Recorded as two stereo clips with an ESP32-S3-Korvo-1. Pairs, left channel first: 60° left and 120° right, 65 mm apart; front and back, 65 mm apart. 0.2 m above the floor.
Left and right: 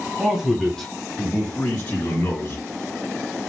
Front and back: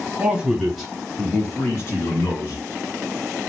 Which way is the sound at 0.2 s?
Straight behind.